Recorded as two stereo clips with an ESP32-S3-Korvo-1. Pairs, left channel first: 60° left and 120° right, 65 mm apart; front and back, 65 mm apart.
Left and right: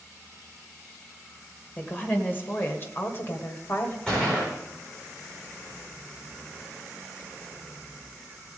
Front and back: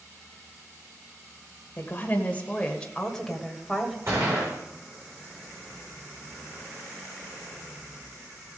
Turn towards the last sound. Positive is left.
turn(degrees=135)